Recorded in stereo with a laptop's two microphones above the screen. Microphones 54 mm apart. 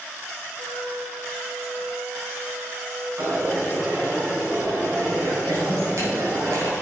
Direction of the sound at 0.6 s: 70° right (ahead or behind).